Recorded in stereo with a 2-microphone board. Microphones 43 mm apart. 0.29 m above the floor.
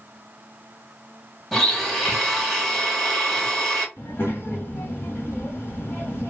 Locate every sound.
1.5 s a blender: 5° left (ahead or behind), 0.9 m
4.0 s a child speaking: 45° left (ahead or behind), 1.1 m